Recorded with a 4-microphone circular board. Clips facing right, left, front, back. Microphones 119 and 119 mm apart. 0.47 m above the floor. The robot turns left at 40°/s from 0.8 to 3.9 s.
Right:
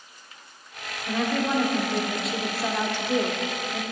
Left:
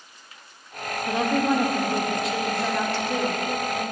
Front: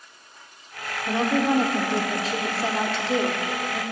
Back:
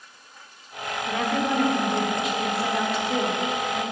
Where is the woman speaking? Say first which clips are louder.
Left 3 dB, front 3 dB; 45° left, 0.9 m; by 3.8 s 65° right, 0.9 m.